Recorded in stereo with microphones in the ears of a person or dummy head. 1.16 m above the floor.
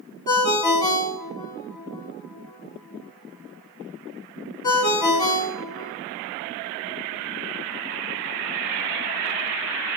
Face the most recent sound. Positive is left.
turn(degrees=20)  # may be behind; listen again after turning